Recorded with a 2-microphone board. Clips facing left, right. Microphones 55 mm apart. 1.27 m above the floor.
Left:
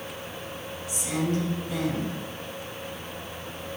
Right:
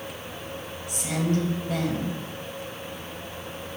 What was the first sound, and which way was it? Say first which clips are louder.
A woman speaking: right 1 dB; 55° right (ahead or behind).